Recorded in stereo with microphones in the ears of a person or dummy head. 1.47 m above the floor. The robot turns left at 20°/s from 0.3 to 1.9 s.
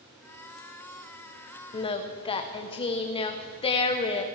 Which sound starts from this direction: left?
Singing, at 1.7 s.